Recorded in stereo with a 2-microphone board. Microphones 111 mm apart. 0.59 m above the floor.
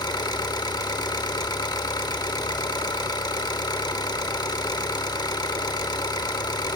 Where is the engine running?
35° left (ahead or behind), 0.8 m.